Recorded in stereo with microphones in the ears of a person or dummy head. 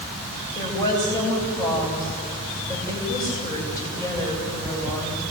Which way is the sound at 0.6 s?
15° left (ahead or behind).